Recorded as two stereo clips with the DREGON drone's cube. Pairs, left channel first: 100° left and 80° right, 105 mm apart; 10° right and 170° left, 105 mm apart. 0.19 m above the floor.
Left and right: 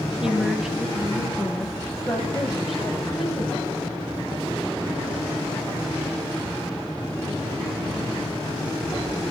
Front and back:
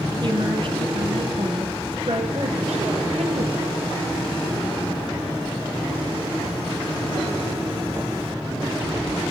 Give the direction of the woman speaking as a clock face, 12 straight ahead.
5 o'clock.